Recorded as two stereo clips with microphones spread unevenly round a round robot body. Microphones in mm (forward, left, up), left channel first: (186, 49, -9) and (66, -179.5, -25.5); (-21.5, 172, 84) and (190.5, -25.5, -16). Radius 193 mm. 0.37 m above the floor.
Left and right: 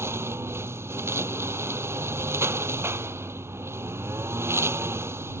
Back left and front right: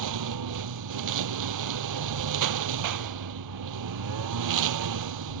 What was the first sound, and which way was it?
A lawn mower, 35° right.